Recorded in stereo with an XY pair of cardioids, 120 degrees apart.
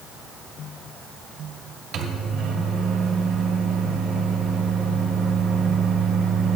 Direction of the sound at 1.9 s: 65° right.